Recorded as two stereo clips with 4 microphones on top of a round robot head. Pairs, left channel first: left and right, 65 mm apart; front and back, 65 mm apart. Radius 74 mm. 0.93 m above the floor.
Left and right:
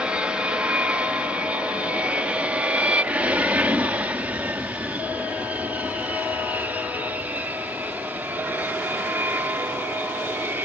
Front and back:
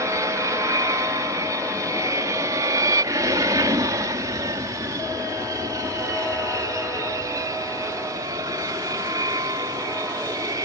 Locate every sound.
0.0 s an aircraft: 165° right; by 10.6 s 155° right